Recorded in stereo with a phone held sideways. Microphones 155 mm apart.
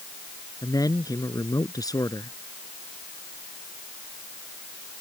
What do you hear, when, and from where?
0.6 s a man speaking: 25° left (ahead or behind)